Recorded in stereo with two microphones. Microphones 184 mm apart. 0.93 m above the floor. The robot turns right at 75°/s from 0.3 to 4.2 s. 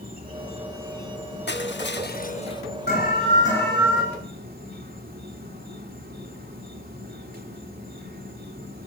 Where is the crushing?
70° left, 0.9 m; by 2.6 s 160° left, 0.9 m.